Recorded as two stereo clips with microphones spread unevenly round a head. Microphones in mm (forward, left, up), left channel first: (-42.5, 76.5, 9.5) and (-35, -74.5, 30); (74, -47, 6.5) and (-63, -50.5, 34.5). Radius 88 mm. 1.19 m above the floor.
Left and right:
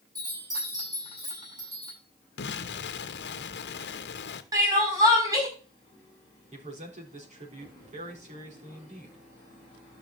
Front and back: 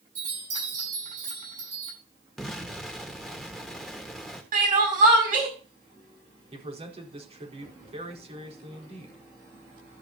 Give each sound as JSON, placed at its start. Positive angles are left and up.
{"t": 0.1, "sound": "a chime", "azimuth_deg": -150, "distance_m": 9.5}
{"t": 2.4, "sound": "an explosion", "azimuth_deg": 90, "distance_m": 1.2}
{"t": 4.5, "sound": "crying", "azimuth_deg": -155, "distance_m": 6.0}
{"t": 6.5, "sound": "a man speaking", "azimuth_deg": -130, "distance_m": 4.5}